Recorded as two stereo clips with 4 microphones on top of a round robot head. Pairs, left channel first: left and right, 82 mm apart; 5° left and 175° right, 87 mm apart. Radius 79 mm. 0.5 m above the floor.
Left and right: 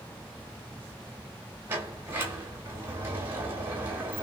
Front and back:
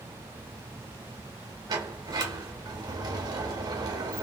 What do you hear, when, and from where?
1.7 s a sliding door: 150° right, 1.3 m